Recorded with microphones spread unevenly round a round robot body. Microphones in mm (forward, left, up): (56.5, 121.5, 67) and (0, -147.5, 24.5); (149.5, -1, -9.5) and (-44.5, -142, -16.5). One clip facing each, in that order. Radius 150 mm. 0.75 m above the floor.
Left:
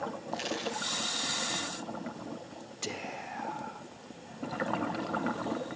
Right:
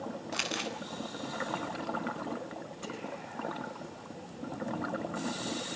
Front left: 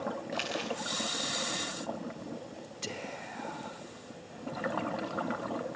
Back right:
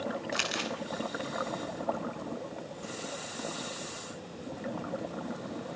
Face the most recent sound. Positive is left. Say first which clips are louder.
# left 3 dB, back right 1 dB
turn(degrees=50)